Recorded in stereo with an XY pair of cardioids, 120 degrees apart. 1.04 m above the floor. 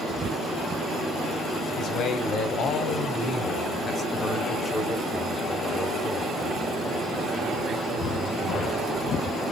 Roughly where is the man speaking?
Ahead left.